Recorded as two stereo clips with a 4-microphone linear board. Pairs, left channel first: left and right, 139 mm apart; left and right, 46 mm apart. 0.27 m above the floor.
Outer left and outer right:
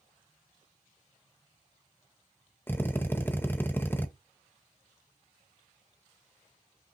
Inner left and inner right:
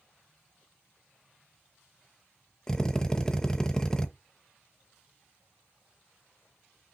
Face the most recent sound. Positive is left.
turn(degrees=15)  # may be behind; listen again after turning